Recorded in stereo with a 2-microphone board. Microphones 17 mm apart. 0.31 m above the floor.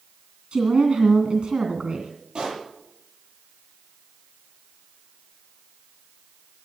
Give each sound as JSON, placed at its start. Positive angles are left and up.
{"t": 0.5, "sound": "a woman speaking", "side_deg": -65, "distance_m": 2.0}
{"t": 2.4, "sound": "a pop", "side_deg": -45, "distance_m": 9.0}